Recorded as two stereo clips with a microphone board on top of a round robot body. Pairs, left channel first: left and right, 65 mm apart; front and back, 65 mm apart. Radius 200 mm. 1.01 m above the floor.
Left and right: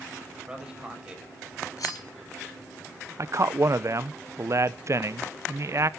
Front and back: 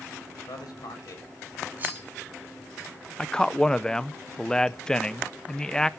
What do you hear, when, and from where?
0.5 s a man speaking: 15° right, 6.5 m
1.8 s cutlery clinking: 120° left, 3.5 m
3.2 s a man speaking: 75° right, 1.1 m